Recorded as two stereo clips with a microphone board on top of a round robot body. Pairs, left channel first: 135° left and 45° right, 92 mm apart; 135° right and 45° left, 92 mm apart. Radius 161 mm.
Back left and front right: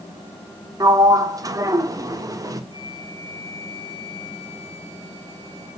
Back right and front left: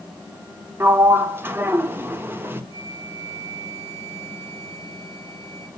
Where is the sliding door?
15° right, 1.4 m.